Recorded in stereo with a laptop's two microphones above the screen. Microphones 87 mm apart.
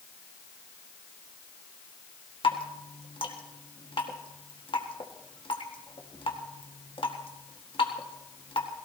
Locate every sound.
2.4 s dripping: 75° left (ahead or behind), 1.7 m